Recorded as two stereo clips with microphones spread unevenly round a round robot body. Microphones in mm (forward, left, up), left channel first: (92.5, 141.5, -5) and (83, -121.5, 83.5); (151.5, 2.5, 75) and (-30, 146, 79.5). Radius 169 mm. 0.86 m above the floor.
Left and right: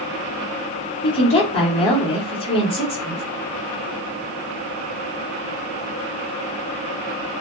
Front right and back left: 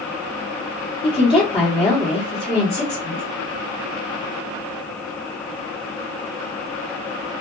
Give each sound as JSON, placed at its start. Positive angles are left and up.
{"t": 1.0, "sound": "a woman speaking", "azimuth_deg": 30, "distance_m": 1.4}